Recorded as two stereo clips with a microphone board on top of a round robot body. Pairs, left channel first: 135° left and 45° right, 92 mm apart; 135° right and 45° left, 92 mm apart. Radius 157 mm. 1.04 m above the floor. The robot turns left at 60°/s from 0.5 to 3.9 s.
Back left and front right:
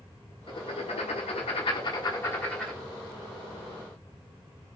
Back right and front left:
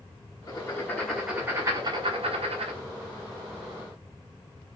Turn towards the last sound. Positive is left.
turn(degrees=-30)